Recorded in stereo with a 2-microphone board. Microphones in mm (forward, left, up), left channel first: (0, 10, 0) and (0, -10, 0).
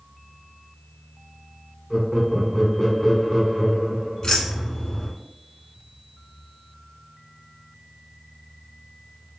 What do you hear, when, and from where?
1.9 s laughter: 5° left (ahead or behind), 1.0 m
4.2 s keys jangling: 40° left (ahead or behind), 0.9 m